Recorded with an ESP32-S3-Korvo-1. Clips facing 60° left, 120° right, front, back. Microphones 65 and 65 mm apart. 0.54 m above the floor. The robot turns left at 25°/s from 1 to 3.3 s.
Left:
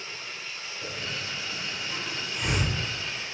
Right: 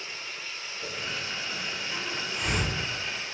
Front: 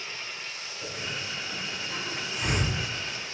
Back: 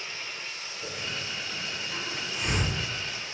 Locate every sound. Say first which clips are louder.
0.8 s a hiss: even, even; 10° left, 1.6 m; by 2.7 s 30° right, 1.6 m